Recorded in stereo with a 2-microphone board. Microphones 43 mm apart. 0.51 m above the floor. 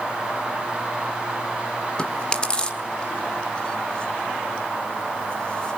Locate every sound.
2.0 s chewing: 20° left (ahead or behind), 1.4 m